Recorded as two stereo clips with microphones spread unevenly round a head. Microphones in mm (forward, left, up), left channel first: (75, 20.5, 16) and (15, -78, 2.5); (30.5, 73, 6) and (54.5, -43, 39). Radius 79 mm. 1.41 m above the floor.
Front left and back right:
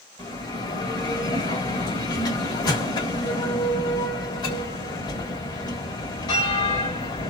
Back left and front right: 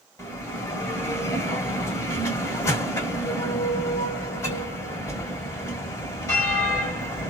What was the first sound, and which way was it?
A bell, 30° left.